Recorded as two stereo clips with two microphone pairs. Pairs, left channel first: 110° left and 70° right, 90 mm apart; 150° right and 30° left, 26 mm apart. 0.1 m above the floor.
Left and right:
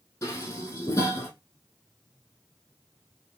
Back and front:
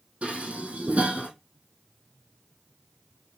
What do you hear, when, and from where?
0.2 s dishes clattering: 65° left, 2 m